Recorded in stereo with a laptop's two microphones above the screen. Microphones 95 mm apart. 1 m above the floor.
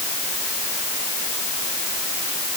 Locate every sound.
Only background noise.